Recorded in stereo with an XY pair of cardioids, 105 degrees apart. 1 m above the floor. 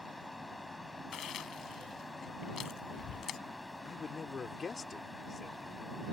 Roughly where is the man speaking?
Ahead left.